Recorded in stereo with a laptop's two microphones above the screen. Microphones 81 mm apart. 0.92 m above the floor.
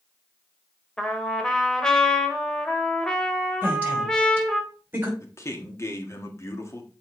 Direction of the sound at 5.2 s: 35° left (ahead or behind).